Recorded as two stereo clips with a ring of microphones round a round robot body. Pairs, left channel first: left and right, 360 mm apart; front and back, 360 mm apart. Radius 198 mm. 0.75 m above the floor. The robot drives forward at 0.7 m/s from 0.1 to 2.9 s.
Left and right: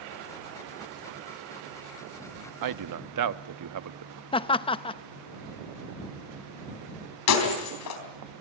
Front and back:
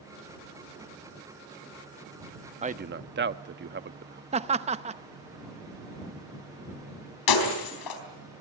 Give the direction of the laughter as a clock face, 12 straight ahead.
7 o'clock.